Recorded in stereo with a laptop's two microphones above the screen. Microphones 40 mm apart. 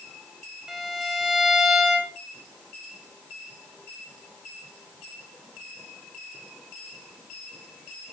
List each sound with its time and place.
0.7 s a violin: 10° right (ahead or behind), 6.5 m